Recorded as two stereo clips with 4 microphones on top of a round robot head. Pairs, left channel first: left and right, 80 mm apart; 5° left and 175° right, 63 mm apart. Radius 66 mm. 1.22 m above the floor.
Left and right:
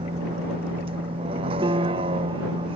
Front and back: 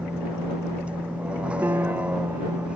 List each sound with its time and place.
0.0 s a vehicle: 100° right
1.6 s a piano: 120° right